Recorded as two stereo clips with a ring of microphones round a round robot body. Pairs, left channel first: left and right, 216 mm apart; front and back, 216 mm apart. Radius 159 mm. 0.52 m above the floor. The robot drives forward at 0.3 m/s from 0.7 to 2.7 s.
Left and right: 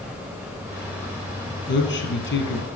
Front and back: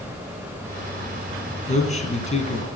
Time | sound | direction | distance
1.7 | a man speaking | 55° left | 5 m